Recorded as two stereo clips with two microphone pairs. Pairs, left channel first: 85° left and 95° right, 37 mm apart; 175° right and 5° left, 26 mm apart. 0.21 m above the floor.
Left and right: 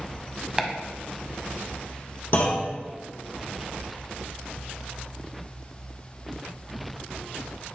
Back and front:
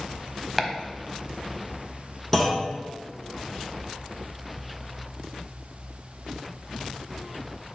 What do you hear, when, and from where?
0.6 s chopping: 70° right, 0.8 m
2.3 s a clunk: 100° left, 2.5 m